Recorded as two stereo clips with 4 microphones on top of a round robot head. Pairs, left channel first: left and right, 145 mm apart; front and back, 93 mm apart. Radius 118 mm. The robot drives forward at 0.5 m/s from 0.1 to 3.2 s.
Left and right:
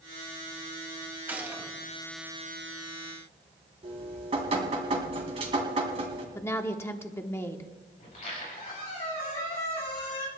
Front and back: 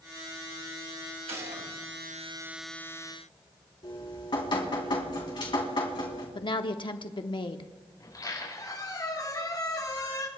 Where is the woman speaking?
20° left, 1.0 m.